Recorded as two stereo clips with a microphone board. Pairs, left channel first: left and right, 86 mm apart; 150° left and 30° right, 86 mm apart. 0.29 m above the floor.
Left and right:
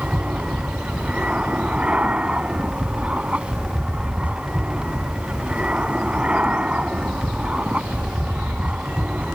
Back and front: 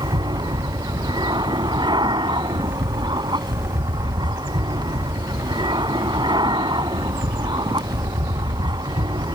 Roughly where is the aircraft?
Ahead.